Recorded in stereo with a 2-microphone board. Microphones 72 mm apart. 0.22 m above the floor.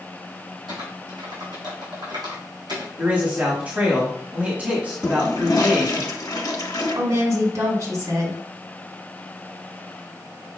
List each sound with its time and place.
0.7 s typing on a keyboard: 75° right (ahead or behind), 2.5 m
3.0 s a man speaking: 25° right (ahead or behind), 1.2 m
5.0 s a toilet flushing: 55° left (ahead or behind), 0.9 m
7.0 s a woman speaking: 50° right (ahead or behind), 1.8 m